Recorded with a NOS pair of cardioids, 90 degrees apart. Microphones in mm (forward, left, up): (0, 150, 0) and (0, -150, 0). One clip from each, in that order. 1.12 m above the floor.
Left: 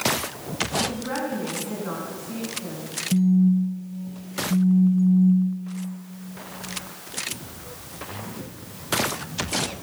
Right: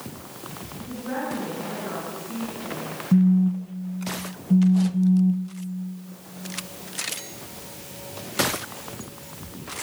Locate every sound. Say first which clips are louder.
0.9 s a woman speaking: left 2 dB; 50° left, 9 m
3.1 s a phone buzzing: even; 20° right, 1.3 m